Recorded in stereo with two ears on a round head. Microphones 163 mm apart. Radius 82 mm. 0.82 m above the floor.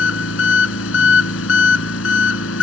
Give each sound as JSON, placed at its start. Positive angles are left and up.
{"t": 0.0, "sound": "an engine running", "side_deg": 85}